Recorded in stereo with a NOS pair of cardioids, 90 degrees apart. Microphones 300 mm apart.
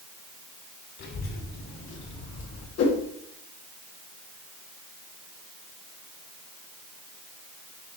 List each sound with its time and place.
1.0 s a child speaking: 70° left, 3.5 m; by 2.7 s 65° left, 1.7 m
2.8 s a whoosh: 55° left, 2 m